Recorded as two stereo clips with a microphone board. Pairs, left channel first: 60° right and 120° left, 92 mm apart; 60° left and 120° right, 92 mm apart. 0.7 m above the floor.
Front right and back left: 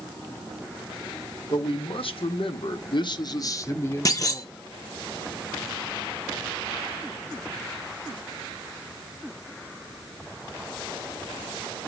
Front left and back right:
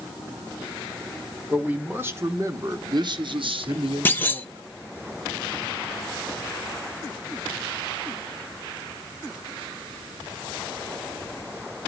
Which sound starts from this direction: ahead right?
A man speaking, at 1.5 s.